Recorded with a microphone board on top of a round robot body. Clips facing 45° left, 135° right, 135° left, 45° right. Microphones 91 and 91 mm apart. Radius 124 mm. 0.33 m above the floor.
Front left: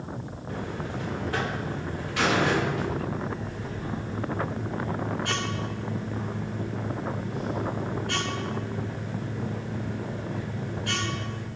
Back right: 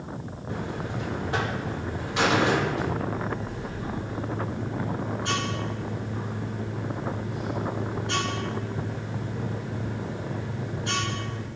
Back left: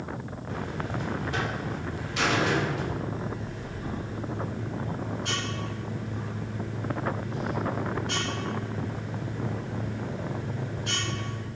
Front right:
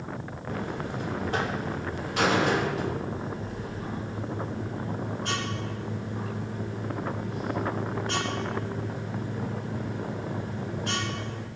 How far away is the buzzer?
About 2 m.